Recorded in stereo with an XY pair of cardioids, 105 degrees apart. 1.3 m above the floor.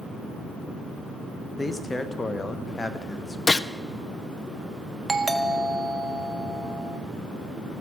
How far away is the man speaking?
About 1.1 m.